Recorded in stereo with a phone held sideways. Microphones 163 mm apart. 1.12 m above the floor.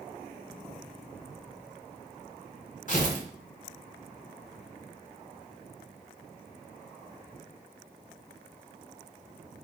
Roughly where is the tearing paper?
Left.